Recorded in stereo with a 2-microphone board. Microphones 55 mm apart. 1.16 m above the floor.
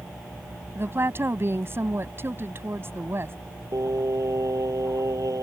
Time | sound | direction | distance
0.8 | a woman speaking | 45° right (ahead or behind) | ?
3.7 | singing | 75° right (ahead or behind) | ?